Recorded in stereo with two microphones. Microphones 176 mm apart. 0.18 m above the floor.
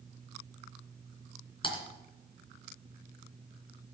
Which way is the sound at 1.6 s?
30° left (ahead or behind).